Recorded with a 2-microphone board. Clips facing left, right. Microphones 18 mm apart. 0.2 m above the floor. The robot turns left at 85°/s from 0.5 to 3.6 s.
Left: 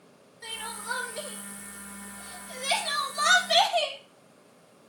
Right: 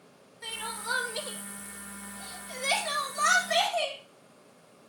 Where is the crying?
5° right (ahead or behind), 1.8 m; by 4.0 s 85° left, 1.8 m.